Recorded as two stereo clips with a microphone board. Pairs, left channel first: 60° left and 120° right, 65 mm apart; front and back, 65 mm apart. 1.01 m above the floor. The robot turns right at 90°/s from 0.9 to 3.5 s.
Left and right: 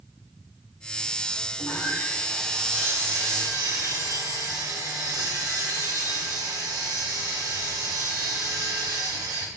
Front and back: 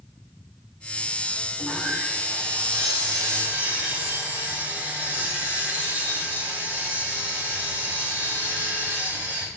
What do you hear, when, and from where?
1.6 s sawing: 65° left, 1.8 m; by 9.5 s 120° right, 1.8 m